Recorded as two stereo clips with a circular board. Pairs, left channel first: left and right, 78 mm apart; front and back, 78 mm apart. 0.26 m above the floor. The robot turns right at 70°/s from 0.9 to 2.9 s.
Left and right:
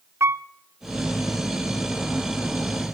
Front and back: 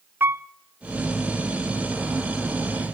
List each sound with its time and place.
0.2 s a piano: 130° right, 0.5 m